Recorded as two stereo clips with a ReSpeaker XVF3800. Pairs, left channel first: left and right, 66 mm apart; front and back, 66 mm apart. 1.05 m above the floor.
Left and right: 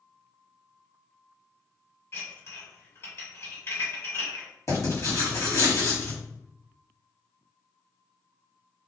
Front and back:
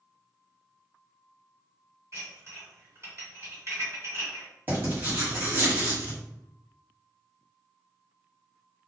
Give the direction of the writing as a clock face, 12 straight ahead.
8 o'clock.